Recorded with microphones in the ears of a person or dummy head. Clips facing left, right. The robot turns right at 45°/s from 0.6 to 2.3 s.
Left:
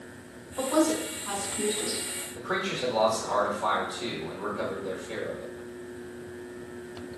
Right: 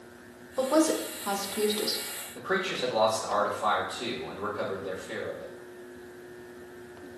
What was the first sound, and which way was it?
A woman speaking, 45° right (ahead or behind).